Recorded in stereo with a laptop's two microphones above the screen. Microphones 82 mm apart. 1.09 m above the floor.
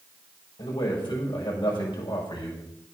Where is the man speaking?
70° left (ahead or behind), 6 m.